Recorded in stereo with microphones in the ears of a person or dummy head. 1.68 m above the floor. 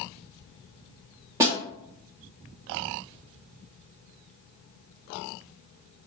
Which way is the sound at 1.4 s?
25° right (ahead or behind).